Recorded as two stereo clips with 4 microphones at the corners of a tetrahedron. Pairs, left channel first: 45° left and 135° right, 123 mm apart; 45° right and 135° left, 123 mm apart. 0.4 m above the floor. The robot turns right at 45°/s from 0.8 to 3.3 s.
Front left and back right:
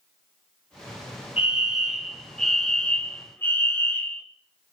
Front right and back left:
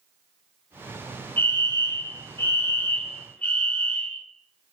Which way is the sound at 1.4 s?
75° right.